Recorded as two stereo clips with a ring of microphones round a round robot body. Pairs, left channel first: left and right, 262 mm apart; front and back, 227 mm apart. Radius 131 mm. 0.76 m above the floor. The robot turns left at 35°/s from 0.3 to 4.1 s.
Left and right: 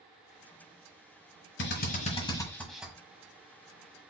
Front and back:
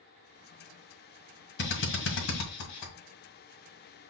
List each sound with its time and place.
1.6 s a drill: 40° left, 1.8 m; by 2.9 s 5° right, 1.8 m